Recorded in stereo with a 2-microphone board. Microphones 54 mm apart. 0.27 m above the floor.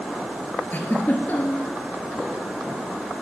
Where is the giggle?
30° left (ahead or behind), 2.5 m.